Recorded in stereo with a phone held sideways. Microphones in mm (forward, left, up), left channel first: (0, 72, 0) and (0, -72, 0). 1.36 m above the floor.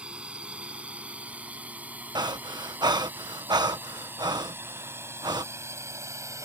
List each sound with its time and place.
0.0 s a drone: 10° right (ahead or behind); by 6.5 s 20° right (ahead or behind)
2.1 s breathing: 30° right (ahead or behind)